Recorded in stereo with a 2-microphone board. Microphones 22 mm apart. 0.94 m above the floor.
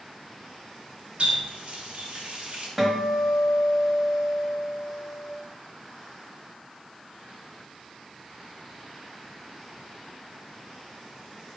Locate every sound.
1.2 s a running tap: 75° right (ahead or behind), 1.0 m
2.8 s a guitar: 5° right (ahead or behind), 0.8 m